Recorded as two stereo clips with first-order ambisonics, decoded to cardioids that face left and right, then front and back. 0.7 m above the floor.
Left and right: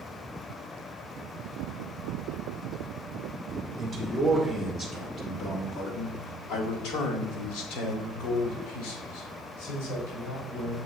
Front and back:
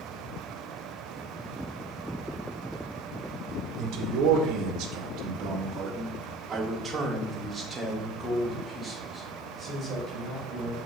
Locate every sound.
3.8 s a man speaking: 155° right, 1.3 m; by 10.8 s 75° left, 4 m